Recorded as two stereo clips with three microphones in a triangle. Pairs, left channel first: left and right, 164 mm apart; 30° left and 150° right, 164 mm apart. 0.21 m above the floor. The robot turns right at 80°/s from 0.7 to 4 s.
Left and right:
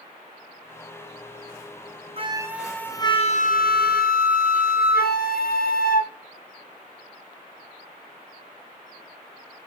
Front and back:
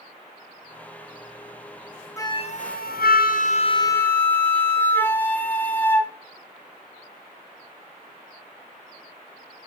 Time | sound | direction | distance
2.2 | a flute | 40° right | 0.9 m